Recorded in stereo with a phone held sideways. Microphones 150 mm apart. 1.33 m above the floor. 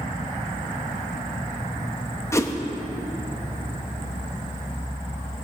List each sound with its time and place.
2.3 s a whoosh: 20° left (ahead or behind), 0.9 m